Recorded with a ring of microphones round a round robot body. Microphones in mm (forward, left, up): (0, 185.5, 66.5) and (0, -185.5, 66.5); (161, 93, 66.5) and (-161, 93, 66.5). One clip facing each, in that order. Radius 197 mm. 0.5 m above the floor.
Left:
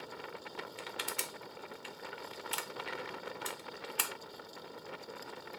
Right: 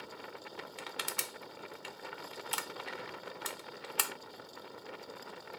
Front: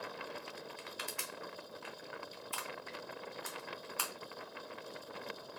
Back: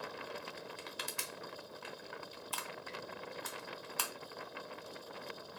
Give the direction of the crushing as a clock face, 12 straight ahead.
4 o'clock.